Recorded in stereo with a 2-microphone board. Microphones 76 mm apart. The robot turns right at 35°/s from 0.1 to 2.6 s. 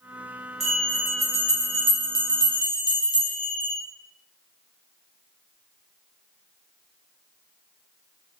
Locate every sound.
0.6 s a bell: 5° left, 2 m; by 3.8 s 75° left, 2 m